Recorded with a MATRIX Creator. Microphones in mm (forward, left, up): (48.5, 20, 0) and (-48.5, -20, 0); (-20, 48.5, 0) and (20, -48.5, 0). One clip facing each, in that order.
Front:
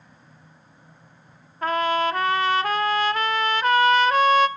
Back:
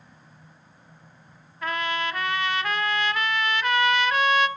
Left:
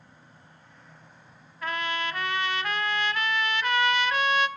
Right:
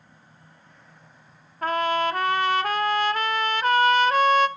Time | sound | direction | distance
1.6 | a trumpet | 25° right | 0.6 m